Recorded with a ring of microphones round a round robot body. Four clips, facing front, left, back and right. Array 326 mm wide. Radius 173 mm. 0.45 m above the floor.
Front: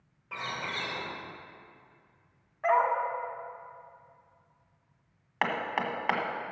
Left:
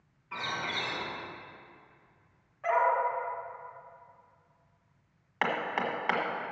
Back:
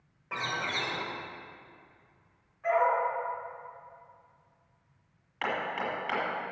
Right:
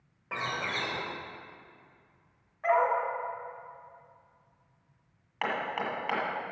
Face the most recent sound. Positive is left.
turn(degrees=20)